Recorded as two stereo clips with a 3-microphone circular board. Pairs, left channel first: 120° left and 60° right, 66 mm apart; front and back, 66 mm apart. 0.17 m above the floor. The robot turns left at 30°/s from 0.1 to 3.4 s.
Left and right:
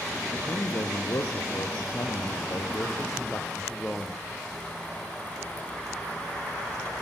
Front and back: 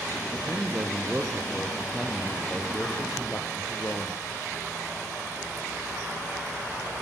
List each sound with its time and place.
0.3 s a man speaking: 145° left, 4 m; by 4.2 s 55° left, 4 m